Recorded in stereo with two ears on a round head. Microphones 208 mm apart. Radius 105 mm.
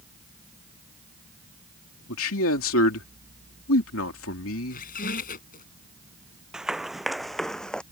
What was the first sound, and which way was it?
A man speaking, 60° left (ahead or behind).